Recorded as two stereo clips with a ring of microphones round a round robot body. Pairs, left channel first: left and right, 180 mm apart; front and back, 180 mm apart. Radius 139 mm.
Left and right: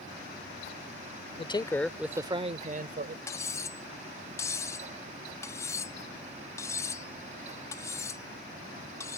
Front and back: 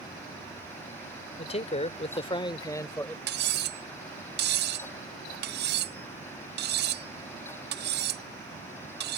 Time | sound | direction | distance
1.4 | a man speaking | 45° left | ?
3.3 | cutlery clinking | 165° left | ?